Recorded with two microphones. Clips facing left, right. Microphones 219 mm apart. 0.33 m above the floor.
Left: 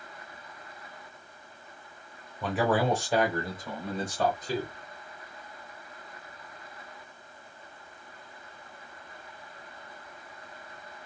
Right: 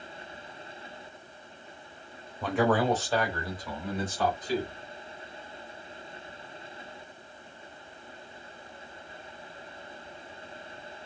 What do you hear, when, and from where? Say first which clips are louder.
2.4 s a man speaking: right 1 dB; centre (ahead or behind), 0.9 m; by 4.7 s 40° left (ahead or behind), 1.7 m